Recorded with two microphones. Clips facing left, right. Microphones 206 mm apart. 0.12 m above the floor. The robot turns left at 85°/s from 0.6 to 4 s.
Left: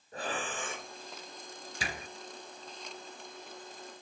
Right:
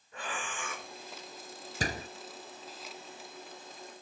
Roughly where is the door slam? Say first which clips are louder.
Right 6 dB; right.